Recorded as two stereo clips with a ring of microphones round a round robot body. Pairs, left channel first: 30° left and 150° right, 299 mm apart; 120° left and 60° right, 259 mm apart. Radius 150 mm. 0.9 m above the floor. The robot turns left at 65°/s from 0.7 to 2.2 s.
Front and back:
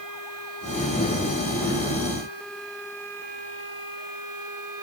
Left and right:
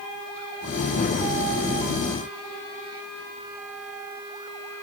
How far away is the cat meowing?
No cat meowing in this recording.